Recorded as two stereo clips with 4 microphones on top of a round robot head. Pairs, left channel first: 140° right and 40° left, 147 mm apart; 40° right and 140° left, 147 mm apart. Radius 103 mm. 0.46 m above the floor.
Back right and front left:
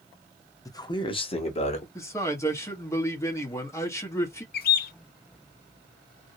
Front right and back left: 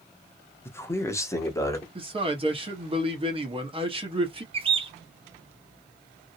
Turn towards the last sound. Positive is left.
turn(degrees=-165)